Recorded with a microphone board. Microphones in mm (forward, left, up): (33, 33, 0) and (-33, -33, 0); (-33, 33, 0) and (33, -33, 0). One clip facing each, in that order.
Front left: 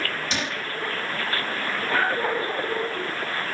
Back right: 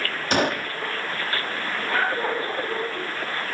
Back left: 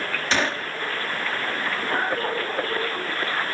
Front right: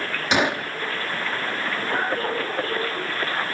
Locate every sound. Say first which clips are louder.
0.3 s a gunshot: back right 7 dB, front right 4 dB; 115° right